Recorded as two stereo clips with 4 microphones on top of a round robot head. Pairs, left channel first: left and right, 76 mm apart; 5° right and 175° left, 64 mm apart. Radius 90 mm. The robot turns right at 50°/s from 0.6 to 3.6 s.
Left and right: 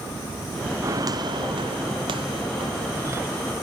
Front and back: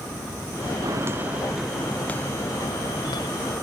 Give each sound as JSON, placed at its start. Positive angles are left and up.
{"t": 0.8, "sound": "footsteps", "azimuth_deg": -140}